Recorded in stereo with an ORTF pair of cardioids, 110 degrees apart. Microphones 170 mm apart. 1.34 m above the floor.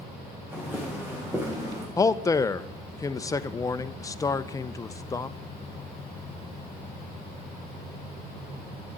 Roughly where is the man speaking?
Ahead.